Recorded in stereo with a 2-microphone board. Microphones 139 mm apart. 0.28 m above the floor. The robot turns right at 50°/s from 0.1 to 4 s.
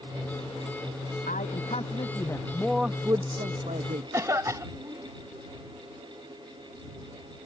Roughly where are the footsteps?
I don't hear footsteps.